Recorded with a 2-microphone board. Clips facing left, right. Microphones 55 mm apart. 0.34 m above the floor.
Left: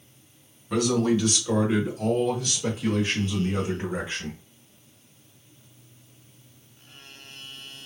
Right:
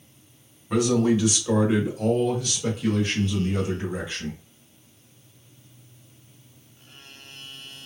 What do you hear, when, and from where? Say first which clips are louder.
0.7 s a man speaking: right 2 dB; 20° right (ahead or behind), 1.4 m; by 4.4 s 25° left (ahead or behind), 1.5 m